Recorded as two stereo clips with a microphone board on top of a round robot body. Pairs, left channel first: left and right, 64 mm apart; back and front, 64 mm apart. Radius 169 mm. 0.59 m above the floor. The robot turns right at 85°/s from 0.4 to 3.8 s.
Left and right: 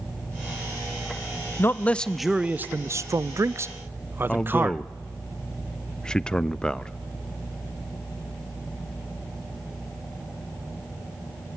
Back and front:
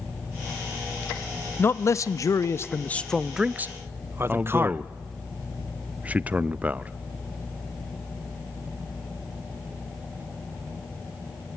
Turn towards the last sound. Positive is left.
turn(degrees=30)